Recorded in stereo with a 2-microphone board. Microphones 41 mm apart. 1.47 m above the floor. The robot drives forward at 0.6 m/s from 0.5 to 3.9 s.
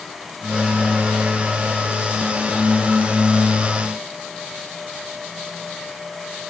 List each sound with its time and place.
Only background noise.